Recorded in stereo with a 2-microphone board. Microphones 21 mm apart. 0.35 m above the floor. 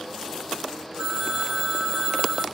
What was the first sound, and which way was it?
A phone ringing, 50° right (ahead or behind).